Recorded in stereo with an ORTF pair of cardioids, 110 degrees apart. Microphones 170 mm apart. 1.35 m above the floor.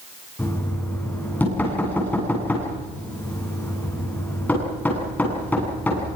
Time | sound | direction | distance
0.4 | knocking | 10° left | 8.5 m